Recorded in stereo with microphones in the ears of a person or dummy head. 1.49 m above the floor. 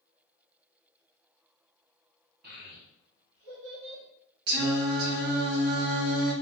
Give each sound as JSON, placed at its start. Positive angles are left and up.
{"t": 2.4, "sound": "a child speaking", "side_deg": -50, "distance_m": 1.0}
{"t": 4.5, "sound": "singing", "side_deg": -85, "distance_m": 1.0}